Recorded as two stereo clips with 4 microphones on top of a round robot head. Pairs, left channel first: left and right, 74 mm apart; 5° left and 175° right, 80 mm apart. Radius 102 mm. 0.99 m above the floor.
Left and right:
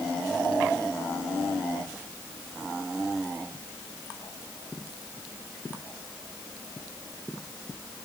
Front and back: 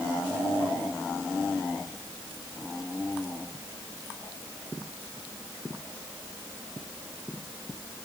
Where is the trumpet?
No trumpet in this recording.